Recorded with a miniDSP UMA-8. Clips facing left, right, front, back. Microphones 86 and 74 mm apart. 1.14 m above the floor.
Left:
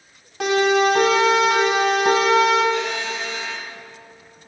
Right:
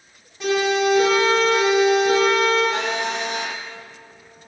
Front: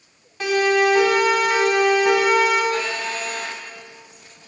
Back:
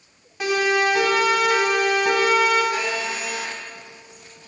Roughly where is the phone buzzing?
Right.